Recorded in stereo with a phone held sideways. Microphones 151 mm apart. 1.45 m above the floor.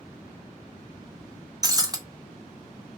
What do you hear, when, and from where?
1.6 s breaking glass: 25° right (ahead or behind), 0.8 m